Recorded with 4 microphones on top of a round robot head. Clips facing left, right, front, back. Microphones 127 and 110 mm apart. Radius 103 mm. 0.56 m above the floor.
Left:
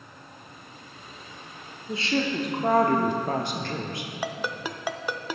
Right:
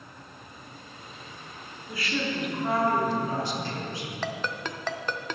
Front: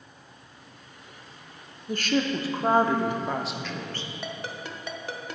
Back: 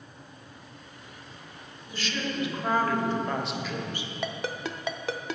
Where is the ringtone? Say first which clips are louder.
Left 2 dB, back 6 dB; 170° left, 0.6 m.